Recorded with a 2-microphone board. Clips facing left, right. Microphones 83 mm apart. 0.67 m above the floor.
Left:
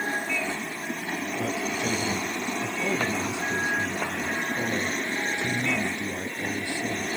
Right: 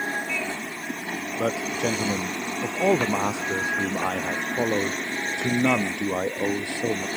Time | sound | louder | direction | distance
1.4 | a man speaking | right 5 dB | 90° right | ?